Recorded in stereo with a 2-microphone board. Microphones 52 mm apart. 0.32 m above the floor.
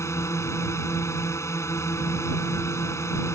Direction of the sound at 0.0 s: 65° left (ahead or behind).